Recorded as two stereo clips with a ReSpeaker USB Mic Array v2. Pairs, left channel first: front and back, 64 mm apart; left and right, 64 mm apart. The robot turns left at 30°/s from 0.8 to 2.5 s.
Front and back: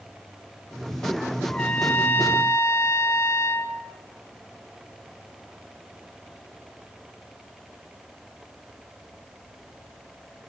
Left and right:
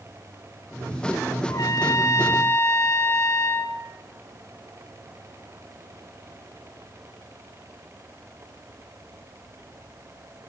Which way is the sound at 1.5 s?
80° left.